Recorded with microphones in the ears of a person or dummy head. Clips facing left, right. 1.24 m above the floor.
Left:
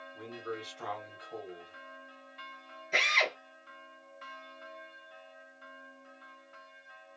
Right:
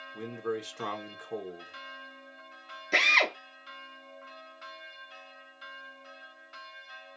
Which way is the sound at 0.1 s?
65° right (ahead or behind).